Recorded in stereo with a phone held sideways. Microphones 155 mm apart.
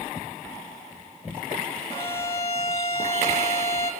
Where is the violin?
20° left (ahead or behind), 1.0 m.